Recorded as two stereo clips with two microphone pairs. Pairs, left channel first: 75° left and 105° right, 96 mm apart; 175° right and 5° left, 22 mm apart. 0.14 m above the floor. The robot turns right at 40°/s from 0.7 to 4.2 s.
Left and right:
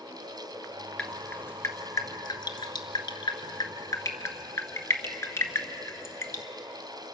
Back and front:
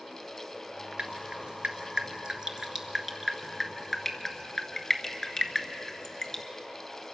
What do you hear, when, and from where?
1.0 s dripping: 5° right, 1.6 m; by 6.4 s 125° left, 1.6 m